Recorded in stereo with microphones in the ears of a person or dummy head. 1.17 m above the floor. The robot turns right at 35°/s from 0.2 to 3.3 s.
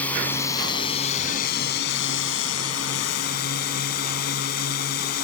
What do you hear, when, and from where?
0.0 s a drone: 10° left; by 5.2 s 120° left